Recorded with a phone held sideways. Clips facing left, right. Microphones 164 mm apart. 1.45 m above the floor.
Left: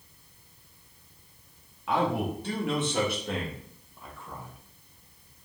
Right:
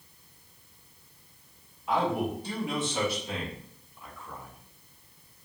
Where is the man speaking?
70° left (ahead or behind), 2 m; by 4.6 s 20° left (ahead or behind), 1.3 m.